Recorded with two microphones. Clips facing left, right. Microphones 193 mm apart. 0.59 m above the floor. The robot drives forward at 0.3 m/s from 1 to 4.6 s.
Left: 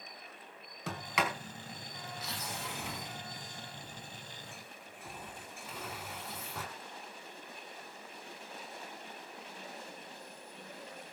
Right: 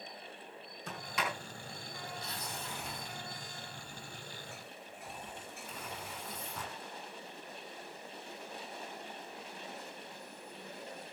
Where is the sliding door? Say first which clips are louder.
Left 4 dB; 80° left, 3.5 m; by 6.7 s 70° left (ahead or behind), 4 m.